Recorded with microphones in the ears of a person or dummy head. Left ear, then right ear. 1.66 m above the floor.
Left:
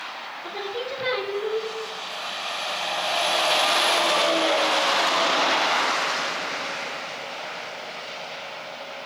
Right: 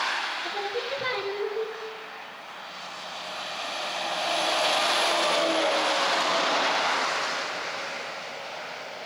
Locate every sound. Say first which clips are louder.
0.4 s singing: even; 5° right (ahead or behind), 0.6 m